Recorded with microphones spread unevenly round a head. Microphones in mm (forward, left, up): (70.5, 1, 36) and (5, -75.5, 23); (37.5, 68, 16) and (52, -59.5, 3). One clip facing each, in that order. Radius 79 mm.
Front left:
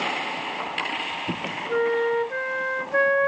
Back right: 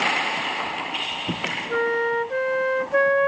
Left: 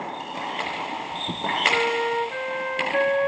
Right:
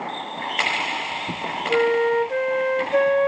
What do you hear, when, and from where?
1.7 s a flute: 40° right, 0.8 m